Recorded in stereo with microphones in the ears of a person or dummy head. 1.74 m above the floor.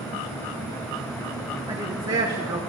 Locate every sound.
1.7 s a woman speaking: 25° right (ahead or behind), 1.5 m